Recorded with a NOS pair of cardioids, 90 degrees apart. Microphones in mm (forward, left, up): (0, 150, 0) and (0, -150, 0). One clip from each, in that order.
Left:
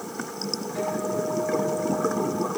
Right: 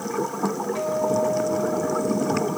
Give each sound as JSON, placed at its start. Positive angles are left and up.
{"t": 0.8, "sound": "a guitar", "azimuth_deg": -35, "distance_m": 2.0}